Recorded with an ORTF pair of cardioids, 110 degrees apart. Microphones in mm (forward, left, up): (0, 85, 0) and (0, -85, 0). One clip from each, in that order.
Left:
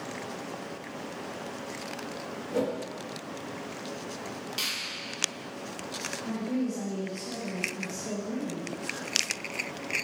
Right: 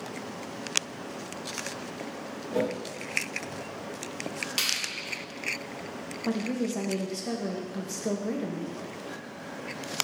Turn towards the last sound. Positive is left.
turn(degrees=-60)